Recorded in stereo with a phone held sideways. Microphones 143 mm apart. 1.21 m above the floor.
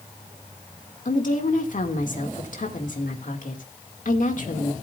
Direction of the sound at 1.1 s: 65° left (ahead or behind).